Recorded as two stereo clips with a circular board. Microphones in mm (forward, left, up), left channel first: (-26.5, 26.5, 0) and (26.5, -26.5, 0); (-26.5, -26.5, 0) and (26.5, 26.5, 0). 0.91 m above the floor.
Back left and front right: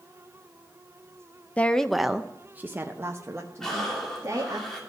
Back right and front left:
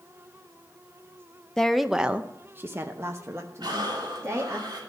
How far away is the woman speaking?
About 0.5 m.